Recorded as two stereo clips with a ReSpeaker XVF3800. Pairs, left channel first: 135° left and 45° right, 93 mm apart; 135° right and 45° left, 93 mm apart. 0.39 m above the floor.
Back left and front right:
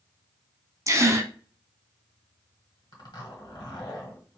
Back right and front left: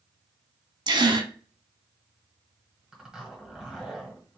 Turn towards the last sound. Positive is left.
turn(degrees=125)